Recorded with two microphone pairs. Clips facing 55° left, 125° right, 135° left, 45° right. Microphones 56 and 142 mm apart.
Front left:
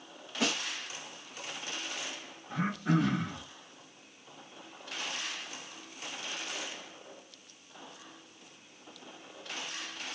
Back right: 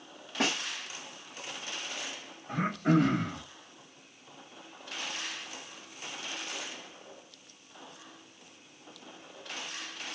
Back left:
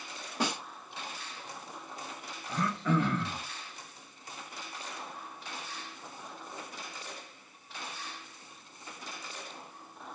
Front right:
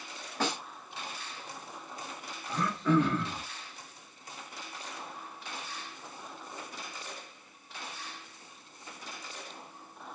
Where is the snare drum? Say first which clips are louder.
Back right 2 dB, even; 150° right, 3 m.